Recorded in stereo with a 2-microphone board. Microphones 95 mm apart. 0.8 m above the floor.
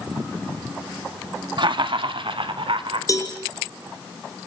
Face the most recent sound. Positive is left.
turn(degrees=35)  # may be behind; listen again after turning